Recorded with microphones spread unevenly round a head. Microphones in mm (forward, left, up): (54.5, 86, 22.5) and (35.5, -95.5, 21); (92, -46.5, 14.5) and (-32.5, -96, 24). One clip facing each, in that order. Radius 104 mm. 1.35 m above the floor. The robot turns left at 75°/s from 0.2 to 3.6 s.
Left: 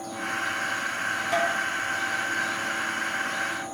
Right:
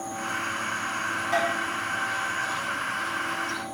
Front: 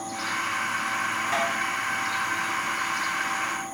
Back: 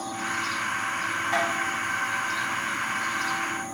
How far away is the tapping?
About 0.8 m.